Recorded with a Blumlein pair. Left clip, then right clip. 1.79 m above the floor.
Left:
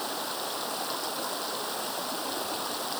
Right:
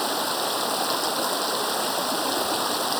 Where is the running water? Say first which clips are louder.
Right 8 dB; 25° right.